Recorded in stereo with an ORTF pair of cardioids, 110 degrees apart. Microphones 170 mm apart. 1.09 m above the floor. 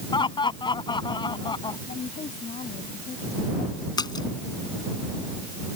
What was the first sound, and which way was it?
Laughter, 25° left.